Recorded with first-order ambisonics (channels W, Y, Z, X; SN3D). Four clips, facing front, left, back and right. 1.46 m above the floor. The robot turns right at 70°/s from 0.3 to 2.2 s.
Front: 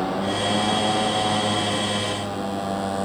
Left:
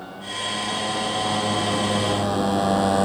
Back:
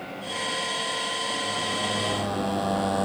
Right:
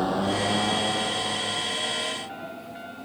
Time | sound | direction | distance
0.0 | a motorcycle | 40° right | ?